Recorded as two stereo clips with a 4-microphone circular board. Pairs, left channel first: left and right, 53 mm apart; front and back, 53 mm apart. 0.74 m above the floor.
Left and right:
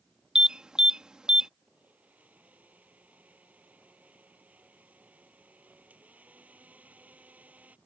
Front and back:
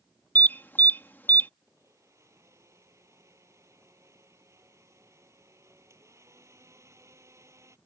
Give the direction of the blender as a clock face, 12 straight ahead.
5 o'clock.